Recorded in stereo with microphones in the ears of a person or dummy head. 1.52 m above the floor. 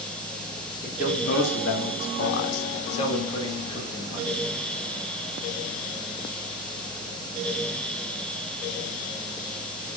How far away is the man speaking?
About 1.1 m.